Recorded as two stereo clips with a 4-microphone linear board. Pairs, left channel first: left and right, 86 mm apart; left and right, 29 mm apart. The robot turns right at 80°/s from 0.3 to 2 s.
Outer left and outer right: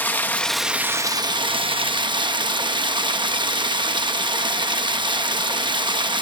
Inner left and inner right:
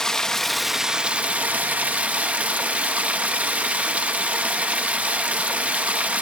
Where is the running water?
160° left, 0.9 m; by 6.2 s 65° right, 0.9 m.